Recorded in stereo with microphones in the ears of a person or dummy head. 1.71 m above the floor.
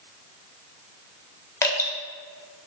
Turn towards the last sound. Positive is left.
turn(degrees=20)  # may be behind; listen again after turning